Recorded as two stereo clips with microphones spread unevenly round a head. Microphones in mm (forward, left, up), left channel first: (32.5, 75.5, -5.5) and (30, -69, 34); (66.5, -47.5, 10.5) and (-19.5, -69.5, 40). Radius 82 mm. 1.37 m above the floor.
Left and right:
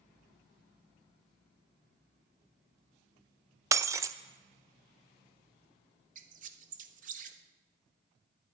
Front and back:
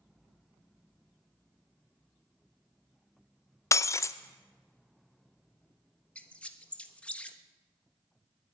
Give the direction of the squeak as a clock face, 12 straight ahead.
2 o'clock.